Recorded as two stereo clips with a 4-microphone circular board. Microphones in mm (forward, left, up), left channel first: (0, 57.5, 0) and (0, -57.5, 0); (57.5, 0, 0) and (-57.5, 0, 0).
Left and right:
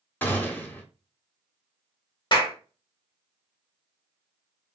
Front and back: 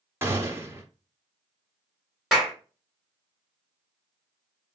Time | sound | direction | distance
0.2 | a gunshot | 145° left | 0.7 m
2.3 | a clap | 95° left | 1.0 m